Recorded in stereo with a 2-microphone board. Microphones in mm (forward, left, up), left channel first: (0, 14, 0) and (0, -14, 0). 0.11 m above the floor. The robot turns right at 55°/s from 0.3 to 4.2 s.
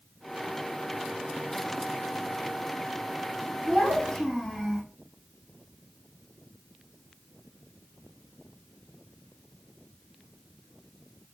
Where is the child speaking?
40° left (ahead or behind), 2.5 m; by 4.8 s 10° left (ahead or behind), 2.5 m.